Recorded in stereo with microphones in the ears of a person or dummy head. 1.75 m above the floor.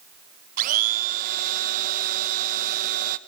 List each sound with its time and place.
0.6 s a blender: 55° right (ahead or behind), 1.5 m